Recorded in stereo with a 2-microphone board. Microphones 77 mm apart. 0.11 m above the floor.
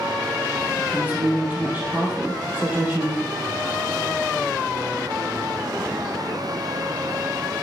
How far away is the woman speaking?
About 3 m.